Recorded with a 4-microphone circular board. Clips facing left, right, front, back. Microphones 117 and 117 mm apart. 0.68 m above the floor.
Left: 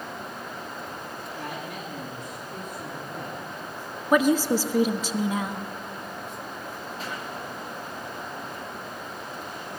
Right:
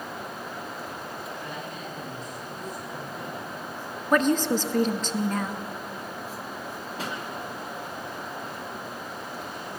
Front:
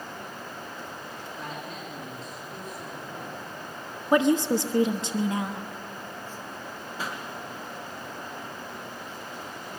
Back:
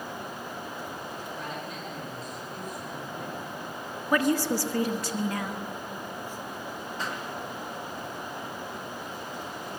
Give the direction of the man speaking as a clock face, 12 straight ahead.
9 o'clock.